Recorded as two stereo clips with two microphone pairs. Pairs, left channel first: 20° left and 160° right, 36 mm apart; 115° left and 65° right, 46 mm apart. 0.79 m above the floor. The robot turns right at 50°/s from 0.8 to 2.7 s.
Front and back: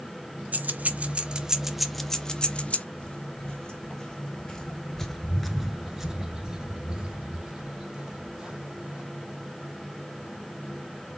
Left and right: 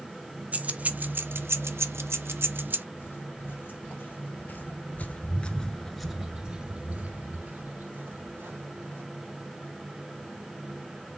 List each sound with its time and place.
0.5 s keys jangling: 120° right, 0.5 m; by 2.9 s 25° right, 0.5 m
3.0 s footsteps: 90° left, 1.8 m; by 9.0 s 100° right, 2.0 m